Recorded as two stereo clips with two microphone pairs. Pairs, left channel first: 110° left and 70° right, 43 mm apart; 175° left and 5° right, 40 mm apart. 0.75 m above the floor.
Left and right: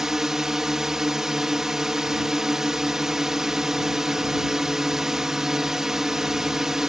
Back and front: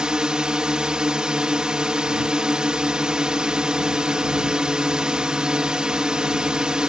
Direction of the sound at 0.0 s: 15° right.